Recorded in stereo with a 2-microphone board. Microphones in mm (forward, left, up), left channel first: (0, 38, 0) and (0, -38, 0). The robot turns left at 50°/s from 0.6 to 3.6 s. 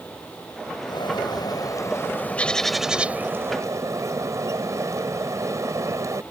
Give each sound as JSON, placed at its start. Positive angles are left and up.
{"t": 0.9, "sound": "a bird", "azimuth_deg": 95}